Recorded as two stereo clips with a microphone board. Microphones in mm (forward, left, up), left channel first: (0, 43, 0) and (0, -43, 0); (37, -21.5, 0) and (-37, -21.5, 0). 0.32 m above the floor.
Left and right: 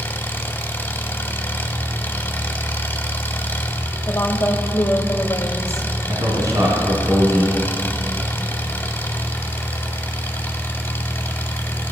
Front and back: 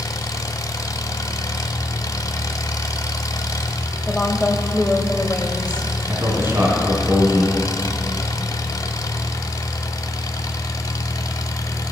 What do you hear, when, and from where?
0.0 s an engine running: 25° left, 0.7 m
4.1 s a woman speaking: 70° left, 1.0 m
6.1 s a man speaking: 130° right, 2.5 m